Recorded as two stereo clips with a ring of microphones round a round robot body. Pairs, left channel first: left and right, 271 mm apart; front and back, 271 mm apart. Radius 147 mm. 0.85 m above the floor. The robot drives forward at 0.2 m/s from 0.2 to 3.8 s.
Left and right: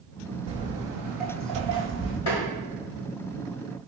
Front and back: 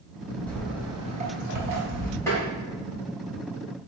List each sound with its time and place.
0.5 s footsteps: 75° right, 0.8 m; by 2.2 s 160° left, 1.3 m
2.3 s tapping: 80° left, 1.1 m